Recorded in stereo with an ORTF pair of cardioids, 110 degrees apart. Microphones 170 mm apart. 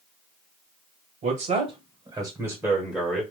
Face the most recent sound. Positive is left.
turn(degrees=10)